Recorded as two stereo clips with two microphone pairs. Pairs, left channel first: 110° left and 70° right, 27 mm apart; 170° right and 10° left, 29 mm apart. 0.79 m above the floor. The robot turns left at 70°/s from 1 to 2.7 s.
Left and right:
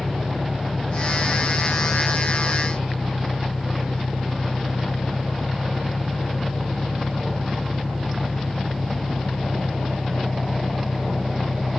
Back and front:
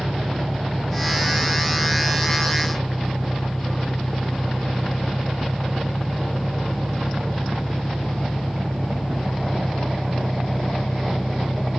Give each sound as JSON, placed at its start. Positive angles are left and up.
{"t": 0.0, "sound": "an engine running", "azimuth_deg": -70}